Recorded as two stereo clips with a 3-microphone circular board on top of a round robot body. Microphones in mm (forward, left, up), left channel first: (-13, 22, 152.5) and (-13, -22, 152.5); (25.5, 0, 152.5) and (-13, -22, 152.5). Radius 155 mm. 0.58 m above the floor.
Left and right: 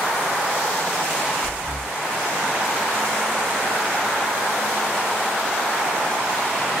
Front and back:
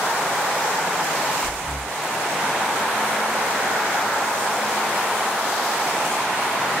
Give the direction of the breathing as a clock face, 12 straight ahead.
11 o'clock.